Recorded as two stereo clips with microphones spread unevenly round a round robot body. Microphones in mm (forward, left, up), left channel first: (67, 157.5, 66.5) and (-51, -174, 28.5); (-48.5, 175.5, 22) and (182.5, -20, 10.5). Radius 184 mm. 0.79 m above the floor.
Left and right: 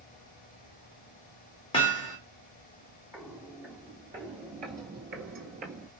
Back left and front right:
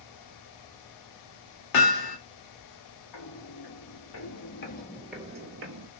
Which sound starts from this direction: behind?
Footsteps, at 3.1 s.